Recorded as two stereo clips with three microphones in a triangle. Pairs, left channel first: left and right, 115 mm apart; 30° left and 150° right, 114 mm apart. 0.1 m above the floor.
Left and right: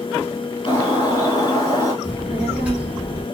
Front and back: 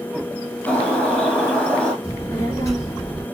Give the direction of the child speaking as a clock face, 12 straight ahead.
1 o'clock.